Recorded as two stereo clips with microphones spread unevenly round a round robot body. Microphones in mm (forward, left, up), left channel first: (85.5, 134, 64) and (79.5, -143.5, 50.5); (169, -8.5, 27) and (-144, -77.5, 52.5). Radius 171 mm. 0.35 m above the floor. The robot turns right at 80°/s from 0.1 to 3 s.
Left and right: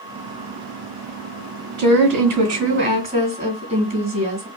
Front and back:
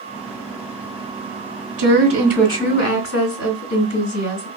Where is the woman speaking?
125° right, 3 m; by 4.5 s 25° right, 3 m.